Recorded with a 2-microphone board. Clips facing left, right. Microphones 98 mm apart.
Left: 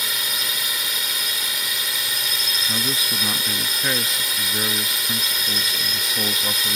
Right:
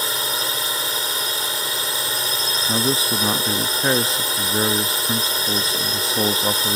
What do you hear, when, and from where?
0.0 s a drone: 35° right (ahead or behind)
2.7 s a man speaking: 30° right (ahead or behind)